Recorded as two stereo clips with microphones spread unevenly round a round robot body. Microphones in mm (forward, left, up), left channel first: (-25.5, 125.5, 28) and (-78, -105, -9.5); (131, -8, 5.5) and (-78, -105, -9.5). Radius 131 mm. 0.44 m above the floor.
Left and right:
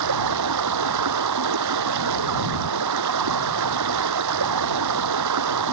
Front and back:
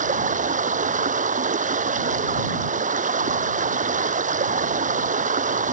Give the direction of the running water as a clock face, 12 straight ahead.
3 o'clock.